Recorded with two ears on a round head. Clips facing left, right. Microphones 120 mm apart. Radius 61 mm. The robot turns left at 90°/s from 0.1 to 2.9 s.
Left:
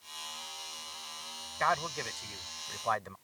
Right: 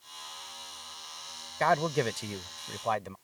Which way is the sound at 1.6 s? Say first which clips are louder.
Right 6 dB; 40° right.